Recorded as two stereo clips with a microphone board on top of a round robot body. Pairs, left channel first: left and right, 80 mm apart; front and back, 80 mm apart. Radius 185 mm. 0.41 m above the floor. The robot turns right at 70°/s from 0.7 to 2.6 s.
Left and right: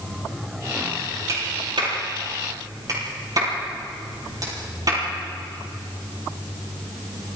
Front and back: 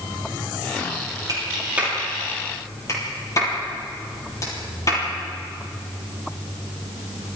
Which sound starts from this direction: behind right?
A clap, at 1.3 s.